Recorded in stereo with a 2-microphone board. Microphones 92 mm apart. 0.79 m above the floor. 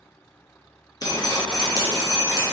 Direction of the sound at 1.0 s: 40° left (ahead or behind).